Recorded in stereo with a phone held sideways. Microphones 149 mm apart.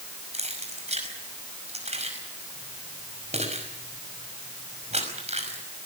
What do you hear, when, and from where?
0.3 s keys jangling: 45° right (ahead or behind), 5.5 m